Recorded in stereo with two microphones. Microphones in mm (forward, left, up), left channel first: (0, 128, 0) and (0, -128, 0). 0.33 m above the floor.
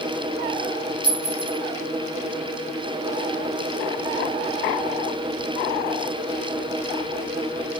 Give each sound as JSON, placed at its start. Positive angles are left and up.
{"t": 1.0, "sound": "a clink", "side_deg": -20, "distance_m": 2.5}